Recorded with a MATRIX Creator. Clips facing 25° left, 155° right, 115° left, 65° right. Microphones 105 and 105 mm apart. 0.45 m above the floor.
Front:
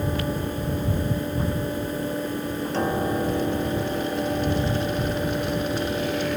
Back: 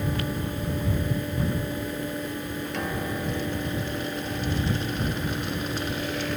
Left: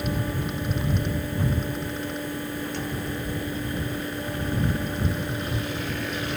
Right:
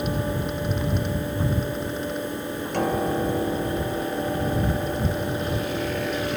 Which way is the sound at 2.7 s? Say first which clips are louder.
Front 8 dB, right 8 dB; 35° right.